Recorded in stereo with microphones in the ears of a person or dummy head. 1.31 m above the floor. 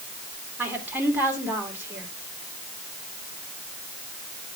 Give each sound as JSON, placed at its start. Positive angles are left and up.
{"t": 0.6, "sound": "a woman speaking", "side_deg": -10, "distance_m": 3.5}